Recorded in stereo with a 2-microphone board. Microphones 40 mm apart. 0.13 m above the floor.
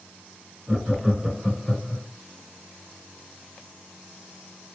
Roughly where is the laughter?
Right.